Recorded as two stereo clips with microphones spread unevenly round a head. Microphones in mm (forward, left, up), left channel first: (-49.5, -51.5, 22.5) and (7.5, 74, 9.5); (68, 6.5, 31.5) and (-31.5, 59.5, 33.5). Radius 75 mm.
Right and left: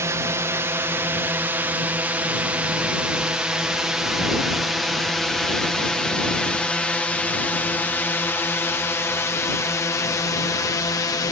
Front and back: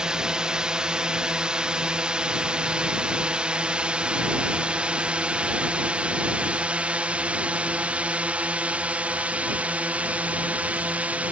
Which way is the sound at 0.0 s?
80° left.